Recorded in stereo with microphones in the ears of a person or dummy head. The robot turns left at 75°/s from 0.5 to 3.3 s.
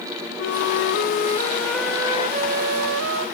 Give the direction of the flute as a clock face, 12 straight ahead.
9 o'clock.